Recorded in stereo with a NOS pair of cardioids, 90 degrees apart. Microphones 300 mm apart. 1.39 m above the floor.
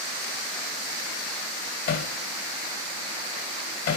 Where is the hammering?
60° left, 3 m.